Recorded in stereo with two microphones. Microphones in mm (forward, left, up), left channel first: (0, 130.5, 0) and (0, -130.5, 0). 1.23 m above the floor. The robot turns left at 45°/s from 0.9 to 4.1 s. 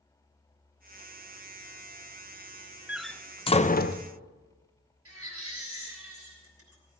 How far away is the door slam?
About 0.5 m.